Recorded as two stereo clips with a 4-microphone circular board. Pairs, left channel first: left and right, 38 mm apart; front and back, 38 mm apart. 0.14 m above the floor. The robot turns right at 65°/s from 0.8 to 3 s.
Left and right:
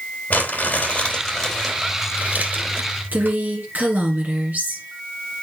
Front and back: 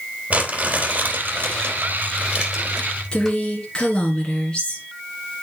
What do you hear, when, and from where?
0.3 s crumpling: 135° left, 3.5 m; by 3.4 s 85° right, 3.5 m
3.1 s a woman speaking: 60° right, 2.5 m